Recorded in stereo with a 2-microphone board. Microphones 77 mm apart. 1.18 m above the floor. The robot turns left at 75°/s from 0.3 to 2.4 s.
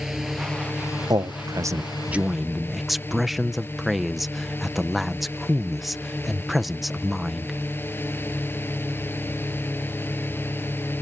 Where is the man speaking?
80° right; by 7.6 s straight behind.